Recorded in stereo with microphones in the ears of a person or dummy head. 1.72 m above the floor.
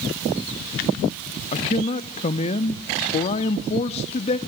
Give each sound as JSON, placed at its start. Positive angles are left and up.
{"t": 1.5, "sound": "a man speaking", "side_deg": 35, "distance_m": 0.6}